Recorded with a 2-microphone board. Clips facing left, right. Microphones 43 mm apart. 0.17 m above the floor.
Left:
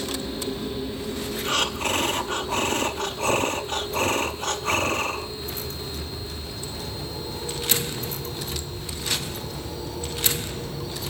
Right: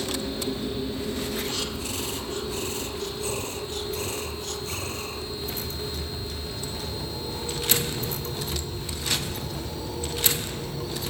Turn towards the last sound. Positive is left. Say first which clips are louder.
# left 7 dB
turn(degrees=45)  # may be behind; listen again after turning